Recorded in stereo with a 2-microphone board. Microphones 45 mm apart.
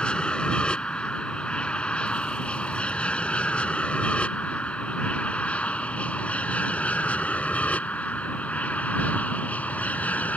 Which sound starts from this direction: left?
An aircraft, at 0.0 s.